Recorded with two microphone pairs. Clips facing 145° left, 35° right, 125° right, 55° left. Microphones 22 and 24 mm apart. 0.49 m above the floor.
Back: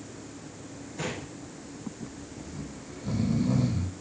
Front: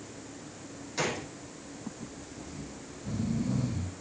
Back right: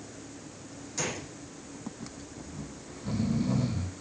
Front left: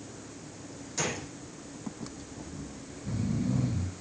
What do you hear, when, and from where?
1.0 s a gunshot: 25° right, 5 m
2.5 s snoring: 165° right, 5.5 m